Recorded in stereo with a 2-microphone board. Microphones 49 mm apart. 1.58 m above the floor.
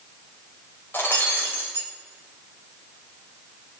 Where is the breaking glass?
45° left (ahead or behind), 4.5 m.